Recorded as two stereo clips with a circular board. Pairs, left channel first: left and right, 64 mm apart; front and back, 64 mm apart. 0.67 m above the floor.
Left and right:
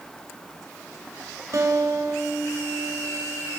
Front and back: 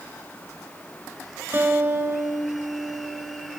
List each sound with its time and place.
1.5 s a guitar: 125° right, 1.6 m